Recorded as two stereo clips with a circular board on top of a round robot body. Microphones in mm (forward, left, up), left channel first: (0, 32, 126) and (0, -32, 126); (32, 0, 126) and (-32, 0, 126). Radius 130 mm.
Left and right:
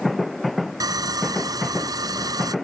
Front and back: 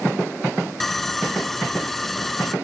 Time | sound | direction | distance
0.8 | sawing | 85° right | ?